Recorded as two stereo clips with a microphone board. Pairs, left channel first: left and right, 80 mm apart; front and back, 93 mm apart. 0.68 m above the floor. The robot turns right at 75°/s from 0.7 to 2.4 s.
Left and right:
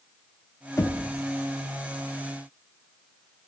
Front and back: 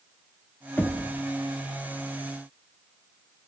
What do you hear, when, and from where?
0.8 s knocking: 60° left, 0.8 m; by 1.1 s 85° left, 0.8 m